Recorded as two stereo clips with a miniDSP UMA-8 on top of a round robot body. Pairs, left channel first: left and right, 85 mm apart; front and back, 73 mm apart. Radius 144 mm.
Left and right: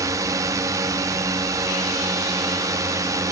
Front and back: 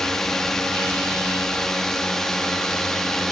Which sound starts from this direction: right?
A drone, at 0.0 s.